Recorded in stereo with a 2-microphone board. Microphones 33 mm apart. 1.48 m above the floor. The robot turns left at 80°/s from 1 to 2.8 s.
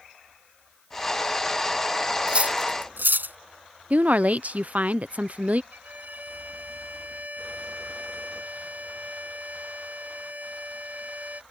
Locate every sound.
2.3 s cutlery clinking: 35° right (ahead or behind); by 3.4 s 75° right (ahead or behind)
3.9 s a woman speaking: 50° right (ahead or behind)
5.7 s a violin: 60° right (ahead or behind)